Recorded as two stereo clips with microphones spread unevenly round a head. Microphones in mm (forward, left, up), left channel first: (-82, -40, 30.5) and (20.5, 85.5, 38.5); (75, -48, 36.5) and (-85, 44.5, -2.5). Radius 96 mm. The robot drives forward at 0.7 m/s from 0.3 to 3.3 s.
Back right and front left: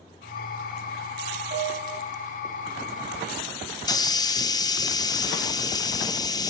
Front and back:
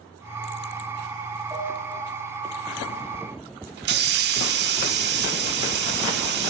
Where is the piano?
75° left, 6.5 m; by 2.0 s 80° left, 6.5 m.